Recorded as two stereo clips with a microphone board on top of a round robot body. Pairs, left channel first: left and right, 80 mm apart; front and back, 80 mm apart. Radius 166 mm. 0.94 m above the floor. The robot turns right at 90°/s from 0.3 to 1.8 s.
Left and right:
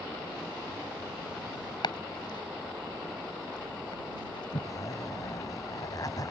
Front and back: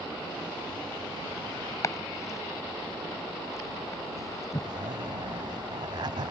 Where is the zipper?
140° left.